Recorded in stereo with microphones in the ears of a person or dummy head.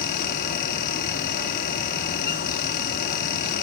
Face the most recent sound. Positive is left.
turn(degrees=50)  # may be behind; listen again after turning